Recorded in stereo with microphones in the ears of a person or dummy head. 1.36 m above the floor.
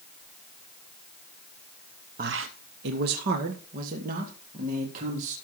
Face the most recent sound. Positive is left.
turn(degrees=-50)  # may be behind; listen again after turning